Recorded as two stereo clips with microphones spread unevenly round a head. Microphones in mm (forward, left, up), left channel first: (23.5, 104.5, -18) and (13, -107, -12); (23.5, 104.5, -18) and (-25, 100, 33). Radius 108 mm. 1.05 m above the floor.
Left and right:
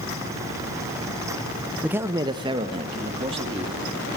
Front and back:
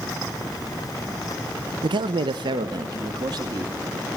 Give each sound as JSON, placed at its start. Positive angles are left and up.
{"t": 1.8, "sound": "a man speaking", "azimuth_deg": 180, "distance_m": 0.6}